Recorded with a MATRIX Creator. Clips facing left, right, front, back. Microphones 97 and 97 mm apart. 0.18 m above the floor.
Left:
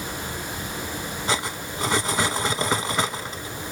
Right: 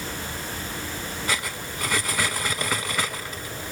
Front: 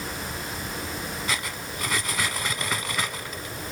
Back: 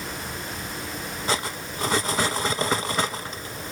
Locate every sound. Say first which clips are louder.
1.3 s cutlery clinking: left 4 dB, back 4 dB; 140° left, 0.9 m